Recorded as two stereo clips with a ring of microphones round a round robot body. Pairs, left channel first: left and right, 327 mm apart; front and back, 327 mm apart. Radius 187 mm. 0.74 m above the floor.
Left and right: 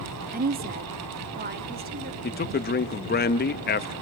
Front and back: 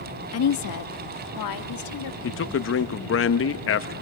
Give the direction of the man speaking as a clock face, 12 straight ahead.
11 o'clock.